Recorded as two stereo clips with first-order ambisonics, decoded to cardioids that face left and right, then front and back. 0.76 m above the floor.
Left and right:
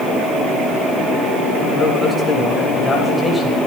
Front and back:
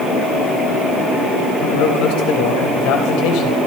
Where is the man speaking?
5° left, 3.5 m.